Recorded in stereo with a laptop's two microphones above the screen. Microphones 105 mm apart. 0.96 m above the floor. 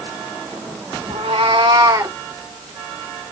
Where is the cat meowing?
70° right (ahead or behind), 1.2 m; by 2.2 s 20° right (ahead or behind), 0.9 m.